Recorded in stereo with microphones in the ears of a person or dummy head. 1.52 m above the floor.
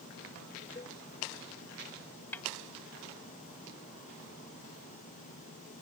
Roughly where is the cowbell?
Left.